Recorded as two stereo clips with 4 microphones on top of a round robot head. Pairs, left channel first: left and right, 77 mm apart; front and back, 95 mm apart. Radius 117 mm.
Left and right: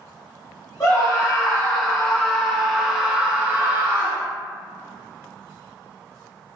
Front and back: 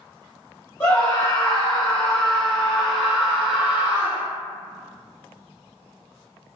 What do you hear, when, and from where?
0.8 s a scream: 65° left, 1.6 m; by 4.3 s 110° right, 1.6 m